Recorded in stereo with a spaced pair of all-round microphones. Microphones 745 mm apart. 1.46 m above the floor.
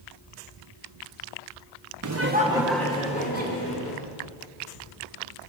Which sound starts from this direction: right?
Laughter, at 2.0 s.